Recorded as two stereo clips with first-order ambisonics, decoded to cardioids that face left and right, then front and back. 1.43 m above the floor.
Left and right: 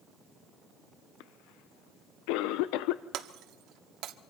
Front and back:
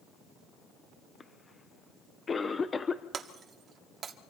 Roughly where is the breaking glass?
Behind right.